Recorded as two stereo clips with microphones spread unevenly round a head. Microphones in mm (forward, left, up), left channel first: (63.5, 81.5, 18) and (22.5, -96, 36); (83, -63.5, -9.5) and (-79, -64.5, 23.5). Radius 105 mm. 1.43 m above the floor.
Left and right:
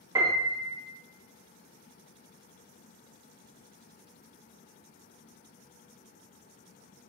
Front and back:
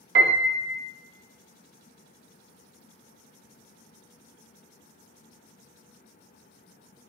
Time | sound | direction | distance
0.1 | a piano | straight behind | 0.6 m